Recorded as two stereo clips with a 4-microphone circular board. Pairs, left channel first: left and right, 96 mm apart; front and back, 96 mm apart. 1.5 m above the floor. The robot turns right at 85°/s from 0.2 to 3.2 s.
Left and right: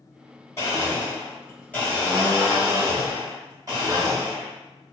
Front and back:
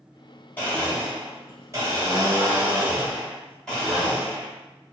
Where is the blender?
55° left, 1.5 m; by 4.5 s 85° right, 1.5 m.